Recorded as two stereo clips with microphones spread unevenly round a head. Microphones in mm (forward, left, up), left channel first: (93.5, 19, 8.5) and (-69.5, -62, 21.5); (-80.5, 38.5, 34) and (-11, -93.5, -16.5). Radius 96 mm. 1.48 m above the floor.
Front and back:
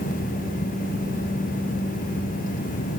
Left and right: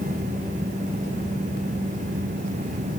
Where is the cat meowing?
I don't hear a cat meowing.